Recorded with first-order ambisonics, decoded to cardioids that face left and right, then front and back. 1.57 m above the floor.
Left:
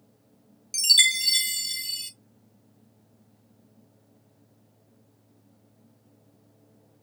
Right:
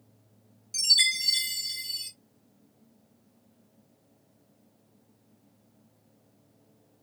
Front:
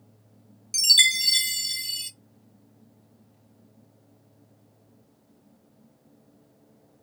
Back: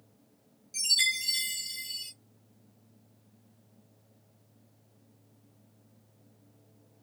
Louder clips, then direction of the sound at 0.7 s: Left 3 dB, front 8 dB; 35° left.